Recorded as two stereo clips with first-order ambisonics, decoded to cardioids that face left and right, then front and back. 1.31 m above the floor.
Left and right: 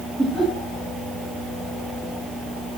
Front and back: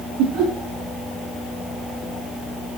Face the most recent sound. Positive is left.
turn(degrees=-170)